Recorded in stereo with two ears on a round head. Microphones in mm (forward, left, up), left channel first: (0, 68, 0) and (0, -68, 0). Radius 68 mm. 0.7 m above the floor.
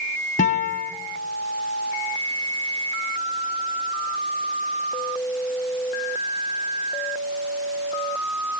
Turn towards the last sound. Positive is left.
turn(degrees=50)  # may be behind; listen again after turning